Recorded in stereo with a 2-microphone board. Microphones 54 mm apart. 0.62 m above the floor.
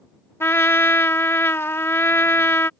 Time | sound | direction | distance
0.4 | a trumpet | 50° left (ahead or behind) | ?